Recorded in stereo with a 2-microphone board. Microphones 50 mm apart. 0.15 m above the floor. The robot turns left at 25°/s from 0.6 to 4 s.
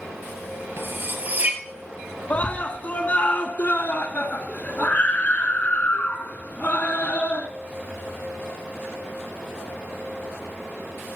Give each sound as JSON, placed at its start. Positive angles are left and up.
{"t": 0.8, "sound": "cutlery clinking", "side_deg": -50, "distance_m": 2.0}
{"t": 2.3, "sound": "a scream", "azimuth_deg": 125, "distance_m": 1.3}